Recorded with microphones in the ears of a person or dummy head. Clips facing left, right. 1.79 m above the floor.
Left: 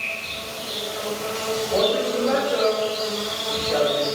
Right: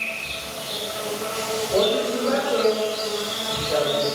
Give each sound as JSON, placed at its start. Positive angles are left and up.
{"t": 0.0, "sound": "an insect", "side_deg": -45, "distance_m": 0.8}
{"t": 1.7, "sound": "a woman speaking", "side_deg": -5, "distance_m": 1.7}